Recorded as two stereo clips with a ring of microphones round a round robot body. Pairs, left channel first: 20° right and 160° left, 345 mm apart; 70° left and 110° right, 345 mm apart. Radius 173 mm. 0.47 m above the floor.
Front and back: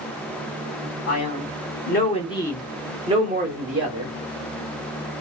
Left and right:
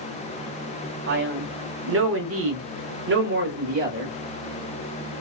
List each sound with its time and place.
1.1 s a man speaking: 55° right, 1.2 m; by 4.2 s 175° right, 1.1 m